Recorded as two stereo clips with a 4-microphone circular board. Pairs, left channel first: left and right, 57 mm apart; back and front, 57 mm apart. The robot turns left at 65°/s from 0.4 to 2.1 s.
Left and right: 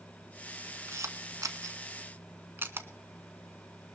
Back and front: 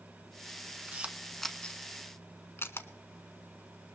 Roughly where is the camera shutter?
Ahead right.